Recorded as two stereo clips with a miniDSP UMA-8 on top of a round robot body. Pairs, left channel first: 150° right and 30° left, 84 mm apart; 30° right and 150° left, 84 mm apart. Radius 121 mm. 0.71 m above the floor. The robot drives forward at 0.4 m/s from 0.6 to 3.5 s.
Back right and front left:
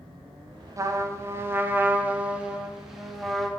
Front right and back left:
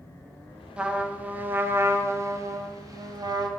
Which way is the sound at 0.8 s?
75° left.